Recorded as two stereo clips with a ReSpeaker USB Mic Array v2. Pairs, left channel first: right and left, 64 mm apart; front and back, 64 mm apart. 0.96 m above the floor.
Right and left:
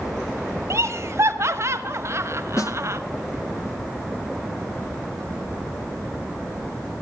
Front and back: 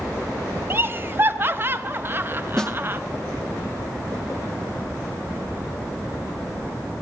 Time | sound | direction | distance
0.7 | laughter | 130° left | 0.8 m
2.6 | a snare drum | 80° right | 0.6 m